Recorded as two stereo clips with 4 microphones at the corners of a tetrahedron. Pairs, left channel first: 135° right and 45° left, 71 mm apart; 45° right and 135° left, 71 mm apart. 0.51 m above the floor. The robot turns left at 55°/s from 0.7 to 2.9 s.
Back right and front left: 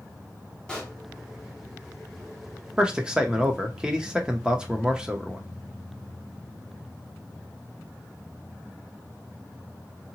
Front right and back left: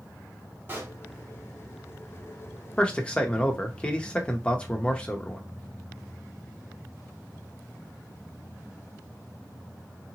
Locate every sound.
0.7 s a pop: 160° left, 1.3 m; by 1.0 s 145° left, 1.3 m
2.8 s a man speaking: 5° right, 0.7 m; by 5.4 s 15° right, 0.7 m